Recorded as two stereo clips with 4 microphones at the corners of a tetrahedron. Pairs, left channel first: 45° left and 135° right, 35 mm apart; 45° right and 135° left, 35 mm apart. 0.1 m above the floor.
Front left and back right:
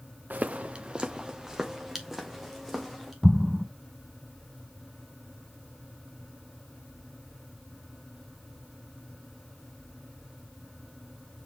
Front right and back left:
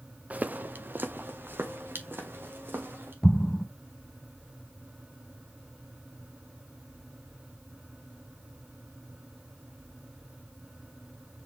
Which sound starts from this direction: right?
An explosion, at 3.2 s.